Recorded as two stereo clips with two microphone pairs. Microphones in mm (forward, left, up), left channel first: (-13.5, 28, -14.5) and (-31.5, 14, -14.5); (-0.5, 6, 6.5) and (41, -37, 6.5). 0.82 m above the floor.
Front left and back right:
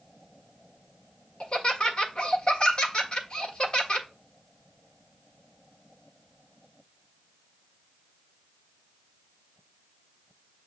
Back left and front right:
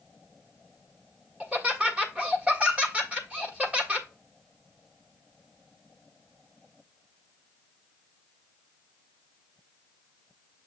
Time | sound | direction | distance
1.4 | laughter | 15° left | 1.4 m